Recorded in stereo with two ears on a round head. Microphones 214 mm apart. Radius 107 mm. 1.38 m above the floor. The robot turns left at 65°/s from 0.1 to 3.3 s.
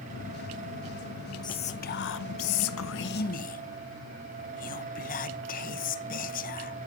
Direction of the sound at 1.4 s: 160° left.